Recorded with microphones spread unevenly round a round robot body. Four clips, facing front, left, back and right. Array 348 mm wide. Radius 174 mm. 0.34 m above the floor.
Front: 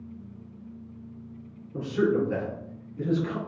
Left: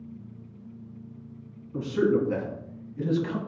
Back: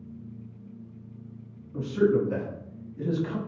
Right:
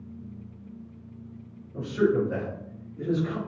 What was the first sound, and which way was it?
A man speaking, 100° left.